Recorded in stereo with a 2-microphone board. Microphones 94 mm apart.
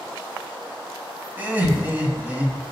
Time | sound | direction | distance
1.4 | laughter | 20° right (ahead or behind) | 2 m